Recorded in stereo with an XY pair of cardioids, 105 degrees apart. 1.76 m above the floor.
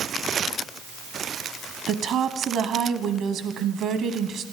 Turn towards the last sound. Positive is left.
turn(degrees=-65)